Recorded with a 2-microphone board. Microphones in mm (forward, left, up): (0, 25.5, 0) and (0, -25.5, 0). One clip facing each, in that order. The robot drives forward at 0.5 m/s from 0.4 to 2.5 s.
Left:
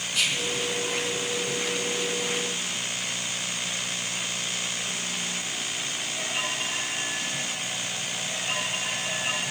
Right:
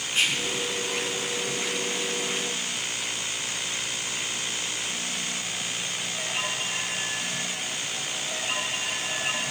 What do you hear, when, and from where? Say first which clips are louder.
0.1 s whispering: right 1 dB; 35° right (ahead or behind), 1.5 m